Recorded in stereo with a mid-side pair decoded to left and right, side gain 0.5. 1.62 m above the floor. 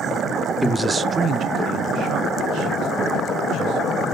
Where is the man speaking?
5° left, 0.6 m; by 4.0 s 75° right, 3.5 m.